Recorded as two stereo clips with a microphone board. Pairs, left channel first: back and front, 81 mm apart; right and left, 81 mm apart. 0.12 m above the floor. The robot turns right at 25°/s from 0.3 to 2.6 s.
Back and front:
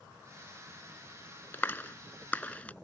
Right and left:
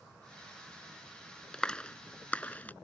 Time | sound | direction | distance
1.5 | a clap | 160° right | ?